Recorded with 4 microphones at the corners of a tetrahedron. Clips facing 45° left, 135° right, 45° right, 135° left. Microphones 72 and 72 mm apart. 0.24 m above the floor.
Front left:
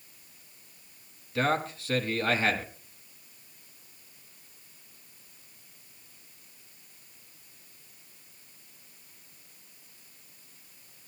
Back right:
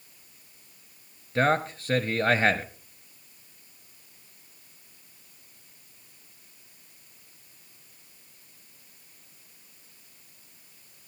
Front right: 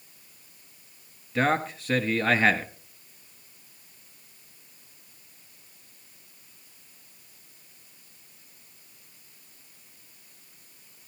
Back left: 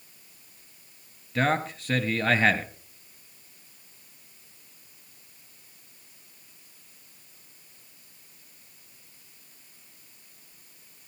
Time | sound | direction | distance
1.4 | a man speaking | 135° right | 1.5 m